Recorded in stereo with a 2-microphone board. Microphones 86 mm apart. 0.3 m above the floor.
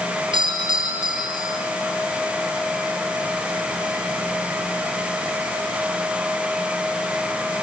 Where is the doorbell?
65° right (ahead or behind), 8 m.